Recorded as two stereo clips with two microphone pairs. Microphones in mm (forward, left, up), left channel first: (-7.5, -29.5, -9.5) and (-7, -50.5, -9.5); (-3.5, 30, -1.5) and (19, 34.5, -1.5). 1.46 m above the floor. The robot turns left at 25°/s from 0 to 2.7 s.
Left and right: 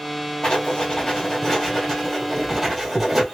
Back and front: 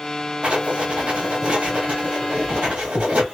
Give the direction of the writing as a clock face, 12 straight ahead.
10 o'clock.